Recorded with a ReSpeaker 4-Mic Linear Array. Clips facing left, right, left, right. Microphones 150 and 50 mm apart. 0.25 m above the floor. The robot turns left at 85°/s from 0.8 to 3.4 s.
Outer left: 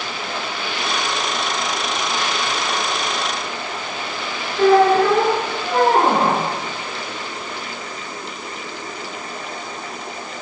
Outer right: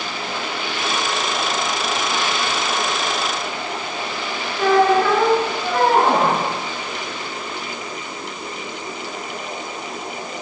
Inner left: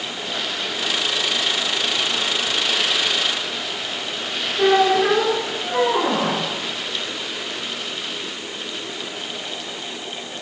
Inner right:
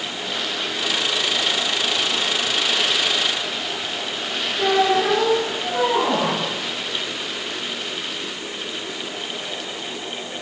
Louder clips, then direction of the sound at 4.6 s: Outer left 2 dB, inner left 2 dB; 30° left (ahead or behind).